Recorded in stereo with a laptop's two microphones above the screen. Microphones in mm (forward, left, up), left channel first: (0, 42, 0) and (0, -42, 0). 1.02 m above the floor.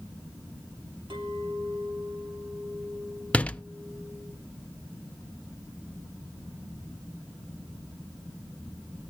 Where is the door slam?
15° left (ahead or behind), 0.6 m.